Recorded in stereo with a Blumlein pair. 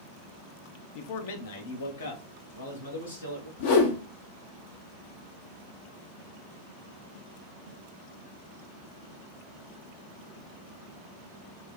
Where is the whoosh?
55° left, 0.9 m.